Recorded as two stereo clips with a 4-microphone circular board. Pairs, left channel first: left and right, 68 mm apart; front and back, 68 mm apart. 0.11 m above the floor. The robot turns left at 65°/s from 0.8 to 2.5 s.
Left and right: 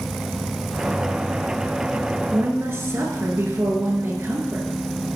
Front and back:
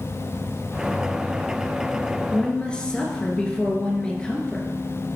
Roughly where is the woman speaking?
Ahead right.